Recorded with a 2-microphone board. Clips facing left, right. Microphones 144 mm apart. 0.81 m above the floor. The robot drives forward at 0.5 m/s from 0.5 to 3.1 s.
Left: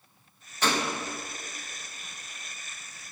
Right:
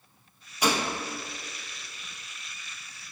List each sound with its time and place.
0.6 s a gunshot: 10° right (ahead or behind), 0.5 m